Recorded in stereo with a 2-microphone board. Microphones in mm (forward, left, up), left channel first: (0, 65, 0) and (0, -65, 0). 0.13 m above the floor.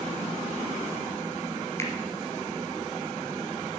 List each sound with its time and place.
1.8 s a finger snap: 20° left (ahead or behind), 2.5 m